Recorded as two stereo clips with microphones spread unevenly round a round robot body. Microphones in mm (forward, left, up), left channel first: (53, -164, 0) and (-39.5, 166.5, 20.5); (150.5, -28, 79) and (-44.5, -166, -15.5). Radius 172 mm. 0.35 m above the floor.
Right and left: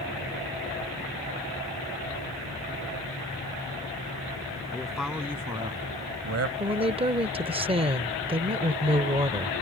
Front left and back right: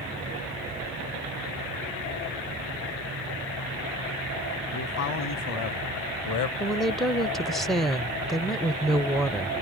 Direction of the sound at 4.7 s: 15° left.